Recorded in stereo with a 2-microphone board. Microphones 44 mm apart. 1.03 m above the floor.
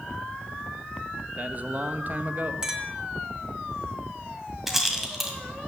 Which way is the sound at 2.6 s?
15° right (ahead or behind).